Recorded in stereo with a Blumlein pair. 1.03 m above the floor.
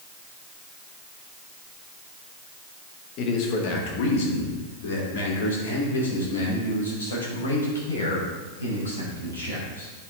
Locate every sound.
3.2 s a man speaking: 35° left, 1.4 m; by 9.9 s 75° left, 6.5 m